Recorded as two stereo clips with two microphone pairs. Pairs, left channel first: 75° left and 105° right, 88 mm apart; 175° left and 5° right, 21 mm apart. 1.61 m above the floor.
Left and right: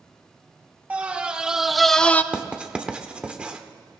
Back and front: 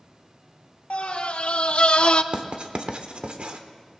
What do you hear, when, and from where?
0.9 s a scream: straight behind, 1.6 m; by 2.2 s 145° left, 0.7 m
2.3 s writing: 30° right, 1.0 m